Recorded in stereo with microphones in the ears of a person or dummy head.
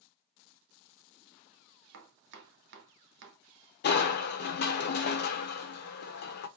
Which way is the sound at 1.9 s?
65° right (ahead or behind).